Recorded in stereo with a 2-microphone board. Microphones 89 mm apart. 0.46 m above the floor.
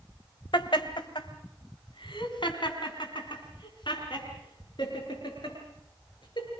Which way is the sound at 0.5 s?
65° left (ahead or behind).